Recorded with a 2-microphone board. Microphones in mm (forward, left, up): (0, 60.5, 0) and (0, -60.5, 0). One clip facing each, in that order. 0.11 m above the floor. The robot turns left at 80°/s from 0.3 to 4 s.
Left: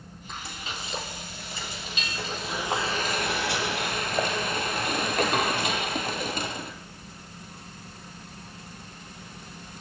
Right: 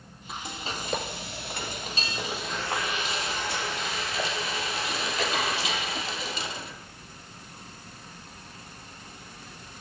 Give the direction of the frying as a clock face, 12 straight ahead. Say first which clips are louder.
Right 3 dB; 12 o'clock.